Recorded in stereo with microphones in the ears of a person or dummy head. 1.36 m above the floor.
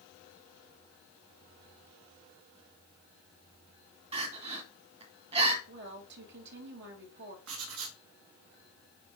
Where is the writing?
80° right, 1.5 m.